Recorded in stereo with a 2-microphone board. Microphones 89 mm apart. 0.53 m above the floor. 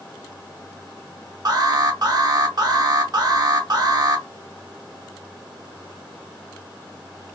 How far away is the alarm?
About 0.6 m.